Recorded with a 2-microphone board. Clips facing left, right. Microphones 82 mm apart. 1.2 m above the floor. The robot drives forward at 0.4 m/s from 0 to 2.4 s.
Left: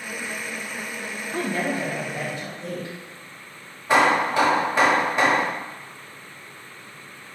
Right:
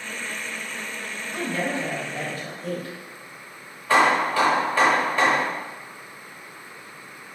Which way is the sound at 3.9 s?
15° left (ahead or behind).